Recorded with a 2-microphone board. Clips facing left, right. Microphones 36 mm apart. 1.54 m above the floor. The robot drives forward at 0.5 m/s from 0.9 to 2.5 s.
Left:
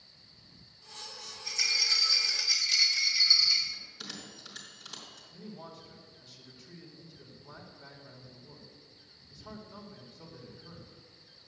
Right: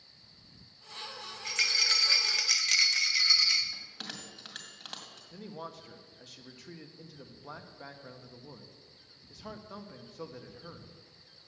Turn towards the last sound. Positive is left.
turn(degrees=-85)